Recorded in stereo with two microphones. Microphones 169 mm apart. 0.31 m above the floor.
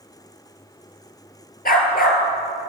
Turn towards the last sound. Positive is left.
turn(degrees=60)  # may be behind; listen again after turning